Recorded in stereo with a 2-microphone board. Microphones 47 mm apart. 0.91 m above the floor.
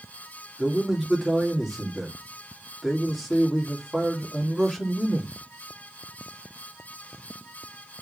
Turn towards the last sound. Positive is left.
turn(degrees=0)  # may be behind; listen again after turning